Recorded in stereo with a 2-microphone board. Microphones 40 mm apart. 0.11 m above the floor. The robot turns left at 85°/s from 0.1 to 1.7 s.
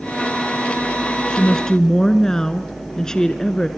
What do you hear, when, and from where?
1.3 s a woman speaking: 20° left (ahead or behind), 1.2 m; by 3.7 s 15° left (ahead or behind), 1.2 m